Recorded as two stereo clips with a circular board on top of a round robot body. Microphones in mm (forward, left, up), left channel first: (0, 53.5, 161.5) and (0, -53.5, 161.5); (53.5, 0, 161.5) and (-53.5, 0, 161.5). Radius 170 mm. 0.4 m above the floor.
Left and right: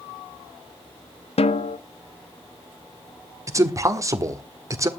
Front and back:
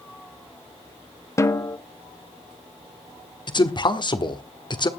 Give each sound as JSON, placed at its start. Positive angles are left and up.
{"t": 1.4, "sound": "a snare drum", "azimuth_deg": 65, "distance_m": 0.8}
{"t": 3.5, "sound": "a man speaking", "azimuth_deg": -35, "distance_m": 1.9}